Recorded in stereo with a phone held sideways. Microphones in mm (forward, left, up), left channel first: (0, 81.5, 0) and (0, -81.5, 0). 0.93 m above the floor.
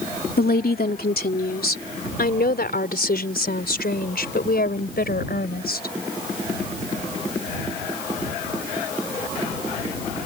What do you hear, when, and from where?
0.4 s a woman speaking: 75° left (ahead or behind); by 6.0 s 85° left